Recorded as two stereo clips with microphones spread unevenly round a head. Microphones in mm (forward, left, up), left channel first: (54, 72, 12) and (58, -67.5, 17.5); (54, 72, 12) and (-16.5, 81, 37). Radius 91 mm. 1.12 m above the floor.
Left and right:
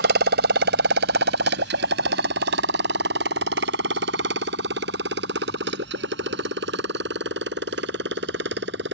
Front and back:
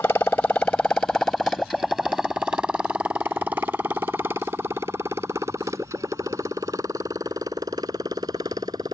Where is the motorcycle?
90° right; by 8.9 s 120° right.